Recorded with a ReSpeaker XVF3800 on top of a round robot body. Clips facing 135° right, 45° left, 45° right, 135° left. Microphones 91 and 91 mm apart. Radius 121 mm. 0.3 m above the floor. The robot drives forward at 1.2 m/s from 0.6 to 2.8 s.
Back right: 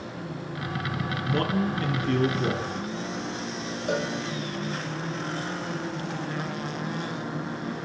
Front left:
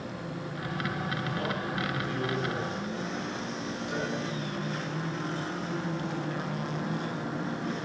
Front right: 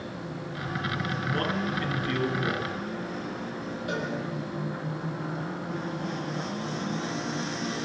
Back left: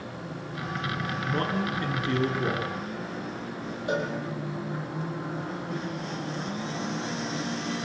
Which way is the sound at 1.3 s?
150° right.